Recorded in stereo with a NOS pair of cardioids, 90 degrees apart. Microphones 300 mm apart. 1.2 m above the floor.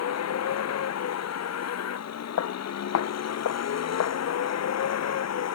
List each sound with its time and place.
0.0 s a vehicle: 60° left
2.4 s footsteps: 60° left